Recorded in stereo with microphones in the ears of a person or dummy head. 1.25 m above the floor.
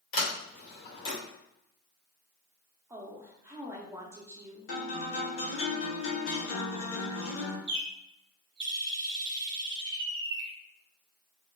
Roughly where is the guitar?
Left.